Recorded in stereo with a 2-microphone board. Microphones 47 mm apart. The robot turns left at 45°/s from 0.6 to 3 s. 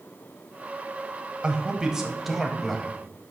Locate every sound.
1.4 s a man speaking: 20° right (ahead or behind), 1.1 m; by 2.9 s 10° left (ahead or behind), 1.1 m